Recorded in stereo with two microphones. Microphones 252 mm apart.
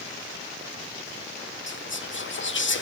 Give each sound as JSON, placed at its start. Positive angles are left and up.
{"t": 1.7, "sound": "whispering", "side_deg": 50, "distance_m": 1.4}